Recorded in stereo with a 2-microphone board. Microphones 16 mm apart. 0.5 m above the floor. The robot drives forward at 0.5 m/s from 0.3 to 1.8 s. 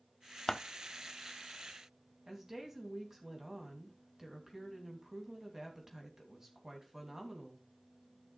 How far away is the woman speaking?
About 3 m.